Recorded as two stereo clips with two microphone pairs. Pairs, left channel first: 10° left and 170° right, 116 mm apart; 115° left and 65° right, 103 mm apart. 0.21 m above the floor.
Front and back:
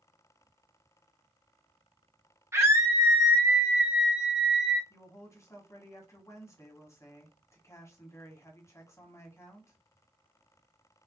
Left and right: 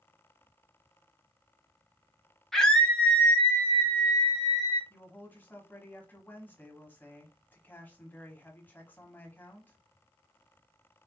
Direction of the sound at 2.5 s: 170° right.